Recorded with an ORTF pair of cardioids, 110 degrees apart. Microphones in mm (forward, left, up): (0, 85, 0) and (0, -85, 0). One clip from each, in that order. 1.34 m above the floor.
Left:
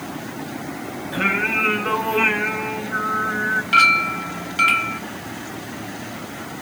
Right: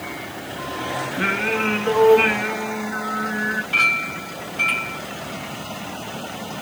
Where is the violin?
I don't hear a violin.